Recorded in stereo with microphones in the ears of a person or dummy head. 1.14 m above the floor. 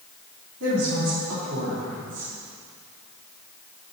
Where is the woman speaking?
80° right, 2.5 m.